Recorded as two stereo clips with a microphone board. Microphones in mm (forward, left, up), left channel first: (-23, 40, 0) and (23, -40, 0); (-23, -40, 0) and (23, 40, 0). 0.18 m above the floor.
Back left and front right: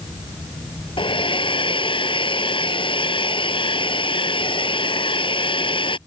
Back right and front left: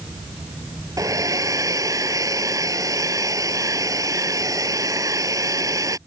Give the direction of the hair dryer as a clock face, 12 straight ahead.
8 o'clock.